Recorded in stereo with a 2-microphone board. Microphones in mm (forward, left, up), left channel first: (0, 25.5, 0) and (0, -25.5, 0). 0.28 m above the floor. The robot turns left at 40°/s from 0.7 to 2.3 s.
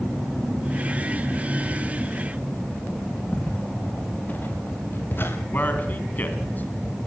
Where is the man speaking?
35° left (ahead or behind), 2 m.